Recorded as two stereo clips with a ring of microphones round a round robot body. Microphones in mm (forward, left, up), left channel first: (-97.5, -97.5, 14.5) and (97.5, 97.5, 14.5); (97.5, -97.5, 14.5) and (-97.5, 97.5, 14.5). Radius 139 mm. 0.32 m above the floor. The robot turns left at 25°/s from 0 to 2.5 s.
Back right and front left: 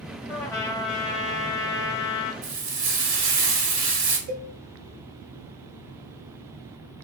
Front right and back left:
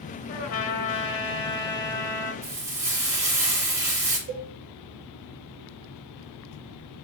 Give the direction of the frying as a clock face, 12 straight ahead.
10 o'clock.